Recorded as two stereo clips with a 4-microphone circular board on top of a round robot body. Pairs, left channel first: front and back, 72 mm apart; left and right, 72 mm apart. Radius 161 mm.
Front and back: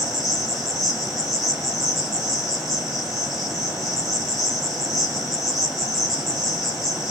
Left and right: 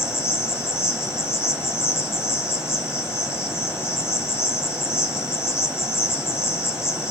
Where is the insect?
90° left, 2.5 m.